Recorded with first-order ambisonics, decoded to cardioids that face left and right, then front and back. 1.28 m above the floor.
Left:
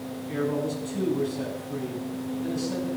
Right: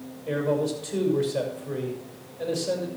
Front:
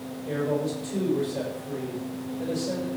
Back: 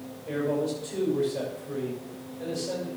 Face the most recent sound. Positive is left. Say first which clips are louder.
# right 3 dB, even
turn(degrees=-95)